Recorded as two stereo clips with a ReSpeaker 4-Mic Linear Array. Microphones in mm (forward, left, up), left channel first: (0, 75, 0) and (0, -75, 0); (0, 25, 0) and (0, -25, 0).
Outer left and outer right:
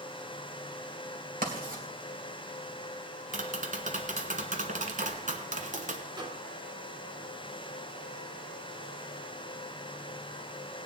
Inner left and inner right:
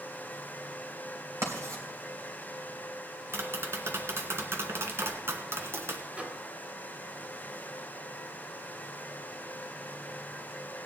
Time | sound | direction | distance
1.4 | writing | 85° right | 3 m
3.3 | tapping | 65° right (ahead or behind) | 1.3 m
6.1 | a microwave | 30° right (ahead or behind) | 1.5 m